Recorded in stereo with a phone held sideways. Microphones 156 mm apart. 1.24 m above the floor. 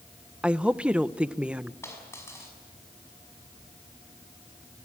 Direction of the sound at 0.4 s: 10° right (ahead or behind).